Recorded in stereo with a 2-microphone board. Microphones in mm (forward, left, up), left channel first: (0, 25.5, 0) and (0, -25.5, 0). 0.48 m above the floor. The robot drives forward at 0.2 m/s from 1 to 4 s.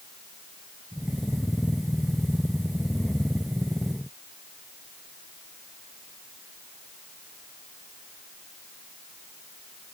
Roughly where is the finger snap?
I don't hear a finger snap.